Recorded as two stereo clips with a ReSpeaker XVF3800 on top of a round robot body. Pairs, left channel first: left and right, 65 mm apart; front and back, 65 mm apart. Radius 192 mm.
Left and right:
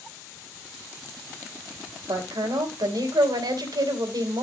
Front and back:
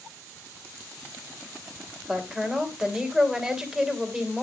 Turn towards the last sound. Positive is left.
turn(degrees=-100)